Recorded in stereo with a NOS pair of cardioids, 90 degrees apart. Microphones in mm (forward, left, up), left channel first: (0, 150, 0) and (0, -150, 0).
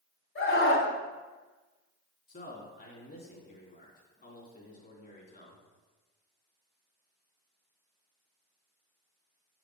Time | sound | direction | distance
0.3 | a scream | 40° left | 3.5 m
2.3 | a man speaking | 35° left | 3 m